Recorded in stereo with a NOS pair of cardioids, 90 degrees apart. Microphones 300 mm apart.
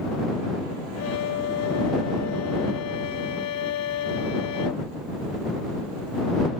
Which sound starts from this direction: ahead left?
A violin, at 1.0 s.